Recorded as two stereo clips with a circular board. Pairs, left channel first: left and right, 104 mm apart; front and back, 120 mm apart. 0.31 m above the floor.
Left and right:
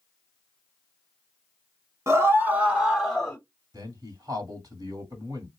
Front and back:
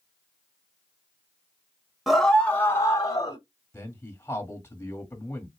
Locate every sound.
2.1 s a scream: 95° right, 1.0 m; by 3.4 s 15° left, 1.1 m
3.7 s a man speaking: 60° right, 1.7 m